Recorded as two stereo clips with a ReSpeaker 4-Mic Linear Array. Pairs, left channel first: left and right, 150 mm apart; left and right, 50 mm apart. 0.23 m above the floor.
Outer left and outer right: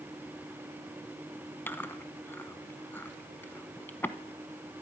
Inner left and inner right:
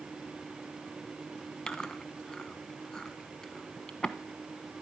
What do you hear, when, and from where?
1.7 s chewing: 15° left (ahead or behind), 0.9 m